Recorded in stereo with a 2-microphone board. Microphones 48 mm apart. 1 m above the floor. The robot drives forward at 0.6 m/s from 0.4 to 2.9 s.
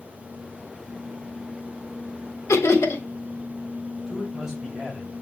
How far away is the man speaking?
About 5.5 m.